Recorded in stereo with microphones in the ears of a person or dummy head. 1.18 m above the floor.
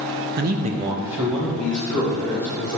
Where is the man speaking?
40° right (ahead or behind), 0.7 m; by 2.8 s 20° left (ahead or behind), 2.5 m.